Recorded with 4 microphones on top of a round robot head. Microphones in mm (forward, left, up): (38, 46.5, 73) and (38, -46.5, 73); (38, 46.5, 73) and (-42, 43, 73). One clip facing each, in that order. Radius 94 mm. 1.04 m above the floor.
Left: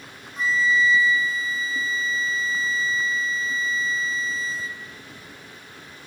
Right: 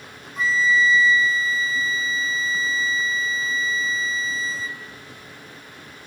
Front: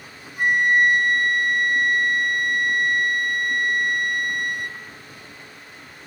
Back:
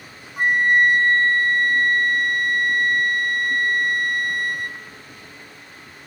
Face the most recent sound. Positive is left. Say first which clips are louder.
# right 1 dB, back 1 dB
turn(degrees=-110)